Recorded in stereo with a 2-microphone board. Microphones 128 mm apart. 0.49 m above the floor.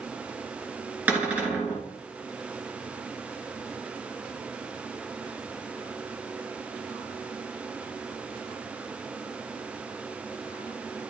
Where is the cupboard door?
10° right (ahead or behind), 2.5 m.